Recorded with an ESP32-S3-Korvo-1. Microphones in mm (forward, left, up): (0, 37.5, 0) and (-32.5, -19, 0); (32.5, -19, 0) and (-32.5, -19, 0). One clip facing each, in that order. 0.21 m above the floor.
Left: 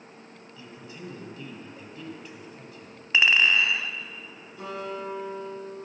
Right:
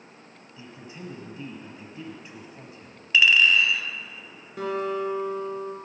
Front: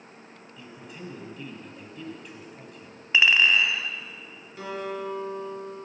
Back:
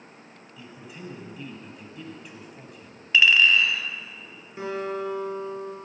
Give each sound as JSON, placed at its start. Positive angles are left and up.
{"t": 0.6, "sound": "a man speaking", "azimuth_deg": -95, "distance_m": 1.5}
{"t": 3.1, "sound": "a clink", "azimuth_deg": 40, "distance_m": 0.9}
{"t": 4.6, "sound": "a guitar", "azimuth_deg": -120, "distance_m": 3.5}